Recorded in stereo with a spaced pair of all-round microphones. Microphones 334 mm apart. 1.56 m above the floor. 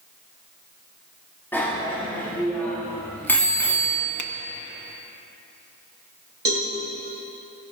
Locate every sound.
1.5 s a bicycle bell: 5° left (ahead or behind), 2.5 m
4.2 s a finger snap: 65° left (ahead or behind), 0.6 m
6.5 s a cowbell: 45° right (ahead or behind), 3 m